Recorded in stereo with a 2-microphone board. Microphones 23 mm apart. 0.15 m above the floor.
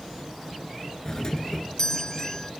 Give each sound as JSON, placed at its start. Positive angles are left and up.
{"t": 1.1, "sound": "a doorbell", "side_deg": 30}